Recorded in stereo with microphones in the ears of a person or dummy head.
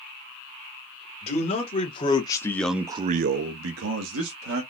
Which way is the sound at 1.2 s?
40° left (ahead or behind).